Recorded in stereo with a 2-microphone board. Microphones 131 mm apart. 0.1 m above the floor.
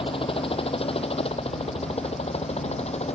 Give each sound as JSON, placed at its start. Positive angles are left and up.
{"t": 0.0, "sound": "a helicopter", "side_deg": 45}